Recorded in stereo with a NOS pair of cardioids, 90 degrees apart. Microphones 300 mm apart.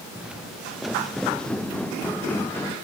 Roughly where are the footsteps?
Ahead.